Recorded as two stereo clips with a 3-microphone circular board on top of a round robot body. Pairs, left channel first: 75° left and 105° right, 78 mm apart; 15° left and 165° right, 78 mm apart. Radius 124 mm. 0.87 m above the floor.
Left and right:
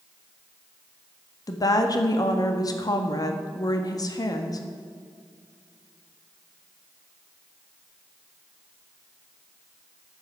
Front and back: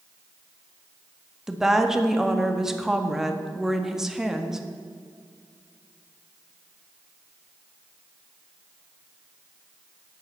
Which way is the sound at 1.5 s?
110° left.